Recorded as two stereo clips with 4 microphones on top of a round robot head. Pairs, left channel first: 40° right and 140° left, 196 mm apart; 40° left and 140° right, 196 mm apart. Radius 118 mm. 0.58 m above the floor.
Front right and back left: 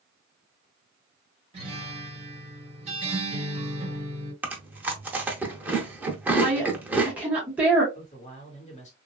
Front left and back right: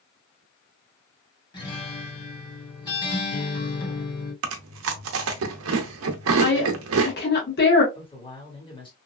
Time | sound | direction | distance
1.5 | a guitar | 95° left | 1.7 m
4.4 | chewing | 140° right | 0.6 m
6.4 | a woman speaking | 55° left | 1.3 m
7.9 | a man speaking | 10° right | 1.5 m